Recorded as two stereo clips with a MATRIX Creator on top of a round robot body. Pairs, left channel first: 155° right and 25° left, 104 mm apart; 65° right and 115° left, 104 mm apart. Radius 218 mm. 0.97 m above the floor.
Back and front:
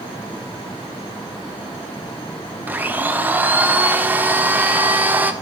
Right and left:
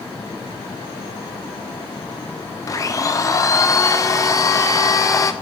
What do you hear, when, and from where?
2.7 s a blender: 40° right, 0.9 m